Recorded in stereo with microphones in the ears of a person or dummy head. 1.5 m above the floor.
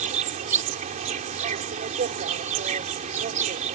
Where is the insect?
35° right (ahead or behind).